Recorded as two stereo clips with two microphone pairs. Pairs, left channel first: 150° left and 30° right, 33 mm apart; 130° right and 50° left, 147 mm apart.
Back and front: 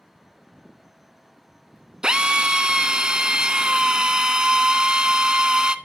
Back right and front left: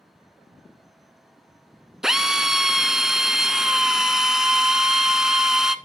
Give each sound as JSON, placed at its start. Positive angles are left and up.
{"t": 2.0, "sound": "a drill", "azimuth_deg": -25, "distance_m": 0.6}